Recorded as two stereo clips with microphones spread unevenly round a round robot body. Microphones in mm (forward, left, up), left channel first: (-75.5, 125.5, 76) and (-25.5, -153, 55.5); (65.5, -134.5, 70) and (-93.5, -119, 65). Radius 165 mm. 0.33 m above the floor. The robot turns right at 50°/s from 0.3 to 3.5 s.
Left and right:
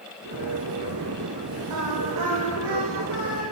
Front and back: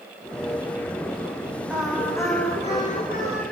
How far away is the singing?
About 7 m.